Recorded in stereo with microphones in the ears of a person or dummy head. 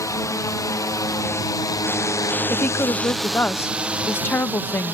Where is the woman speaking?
10° left (ahead or behind).